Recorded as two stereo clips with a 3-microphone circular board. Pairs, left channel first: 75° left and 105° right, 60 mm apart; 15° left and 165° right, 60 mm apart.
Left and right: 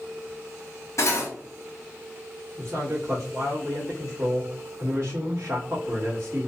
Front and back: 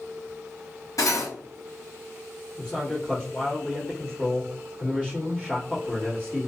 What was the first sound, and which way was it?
Cutlery clinking, 40° left.